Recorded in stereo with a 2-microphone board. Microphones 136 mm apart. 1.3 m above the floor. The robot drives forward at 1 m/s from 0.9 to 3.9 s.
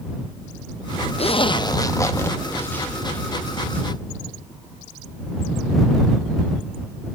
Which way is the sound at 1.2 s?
50° left (ahead or behind).